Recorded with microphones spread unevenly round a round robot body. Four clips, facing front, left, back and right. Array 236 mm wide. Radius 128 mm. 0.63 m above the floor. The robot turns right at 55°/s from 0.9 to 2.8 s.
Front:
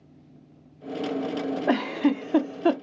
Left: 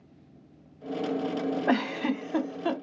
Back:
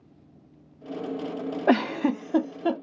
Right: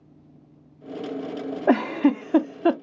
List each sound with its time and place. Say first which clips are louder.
1.7 s a giggle: right 10 dB, back 2 dB; 140° right, 0.5 m; by 2.7 s 80° right, 0.5 m